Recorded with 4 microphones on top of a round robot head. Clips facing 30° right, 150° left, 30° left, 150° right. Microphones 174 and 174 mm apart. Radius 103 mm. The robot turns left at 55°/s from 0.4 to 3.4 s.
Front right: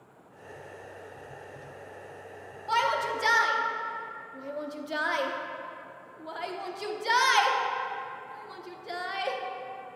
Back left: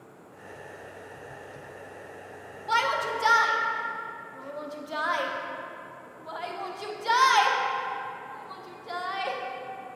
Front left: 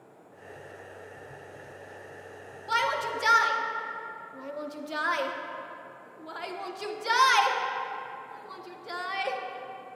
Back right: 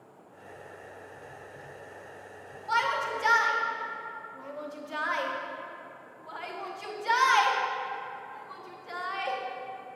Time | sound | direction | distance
2.7 | a shout | 70° left | 0.8 m